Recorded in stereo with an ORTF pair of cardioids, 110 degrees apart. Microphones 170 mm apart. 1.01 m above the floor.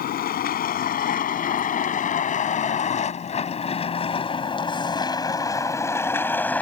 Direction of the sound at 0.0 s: 60° left.